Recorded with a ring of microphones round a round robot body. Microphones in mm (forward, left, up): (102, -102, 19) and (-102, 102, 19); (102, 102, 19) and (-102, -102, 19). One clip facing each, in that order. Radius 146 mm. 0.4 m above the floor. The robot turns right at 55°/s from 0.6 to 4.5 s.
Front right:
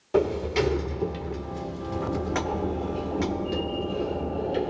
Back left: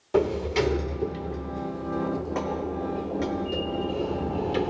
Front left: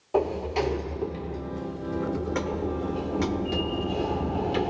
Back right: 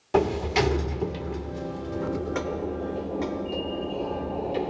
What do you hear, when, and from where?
0.1 s a sliding door: 140° right, 0.6 m; by 4.7 s 75° left, 0.6 m